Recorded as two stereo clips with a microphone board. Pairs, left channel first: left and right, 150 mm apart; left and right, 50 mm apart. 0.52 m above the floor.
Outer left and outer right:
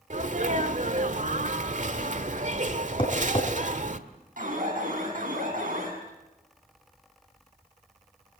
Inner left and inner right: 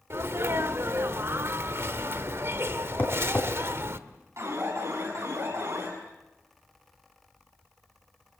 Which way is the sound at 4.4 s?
65° right (ahead or behind).